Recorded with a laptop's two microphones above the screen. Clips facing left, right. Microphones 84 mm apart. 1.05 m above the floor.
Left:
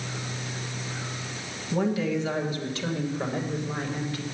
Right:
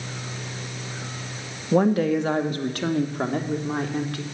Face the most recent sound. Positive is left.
turn(degrees=-65)  # may be behind; listen again after turning